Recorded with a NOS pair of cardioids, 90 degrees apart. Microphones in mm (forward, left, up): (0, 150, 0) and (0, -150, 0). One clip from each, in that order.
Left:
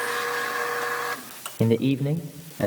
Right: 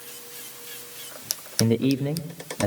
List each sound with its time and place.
1.6 s a man speaking: straight ahead, 1.1 m; by 2.7 s 5° right, 1.8 m